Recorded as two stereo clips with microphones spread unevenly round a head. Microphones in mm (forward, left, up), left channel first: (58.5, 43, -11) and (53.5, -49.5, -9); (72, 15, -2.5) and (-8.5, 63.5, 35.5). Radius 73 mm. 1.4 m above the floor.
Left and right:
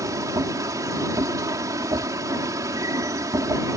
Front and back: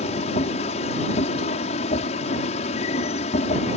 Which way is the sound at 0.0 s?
40° right.